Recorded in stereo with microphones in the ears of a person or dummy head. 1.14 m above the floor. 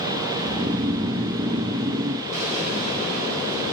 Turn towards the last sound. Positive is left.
turn(degrees=-45)  # may be behind; listen again after turning